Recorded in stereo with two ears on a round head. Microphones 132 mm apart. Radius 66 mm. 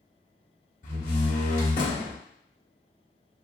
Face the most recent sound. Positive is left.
turn(degrees=60)  # may be behind; listen again after turning